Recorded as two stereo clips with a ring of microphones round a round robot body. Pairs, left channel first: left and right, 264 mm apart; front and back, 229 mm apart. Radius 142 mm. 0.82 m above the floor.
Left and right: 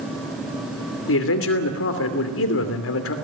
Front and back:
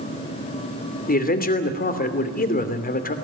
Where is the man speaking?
50° left, 3 m.